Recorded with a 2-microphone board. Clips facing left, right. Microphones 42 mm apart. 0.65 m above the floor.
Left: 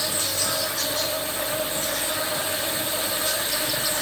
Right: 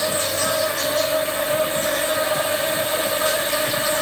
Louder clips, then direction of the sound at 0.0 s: Right 6 dB; 40° right (ahead or behind).